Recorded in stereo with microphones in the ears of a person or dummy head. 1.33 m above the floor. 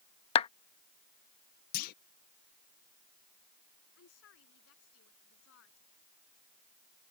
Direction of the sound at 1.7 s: 55° left (ahead or behind).